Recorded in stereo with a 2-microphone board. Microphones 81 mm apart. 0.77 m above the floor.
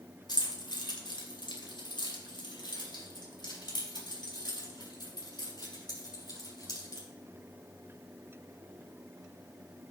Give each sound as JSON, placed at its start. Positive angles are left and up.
{"t": 0.3, "sound": "keys jangling", "side_deg": 70, "distance_m": 2.5}